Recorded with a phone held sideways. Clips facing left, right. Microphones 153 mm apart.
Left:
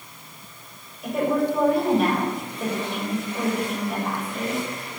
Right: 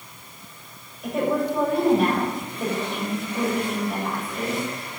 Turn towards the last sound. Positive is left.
turn(degrees=0)  # may be behind; listen again after turning